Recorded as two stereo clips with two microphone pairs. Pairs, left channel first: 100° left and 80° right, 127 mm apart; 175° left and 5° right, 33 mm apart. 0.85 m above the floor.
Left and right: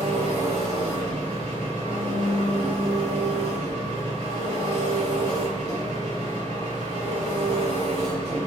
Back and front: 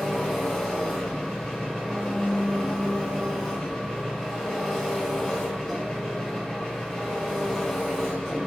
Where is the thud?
I don't hear a thud.